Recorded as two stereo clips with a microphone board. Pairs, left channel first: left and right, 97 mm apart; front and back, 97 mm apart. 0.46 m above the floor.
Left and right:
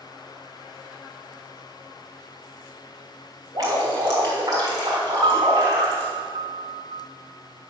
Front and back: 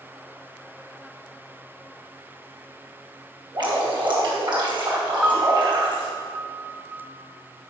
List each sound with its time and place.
3.5 s dripping: 145° right, 4 m
5.2 s a piano: 105° right, 1.1 m